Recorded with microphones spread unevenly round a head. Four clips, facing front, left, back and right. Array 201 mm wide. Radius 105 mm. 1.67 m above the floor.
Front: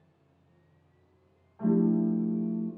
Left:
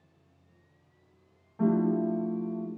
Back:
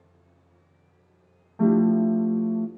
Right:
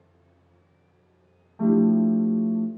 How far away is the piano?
About 1.7 m.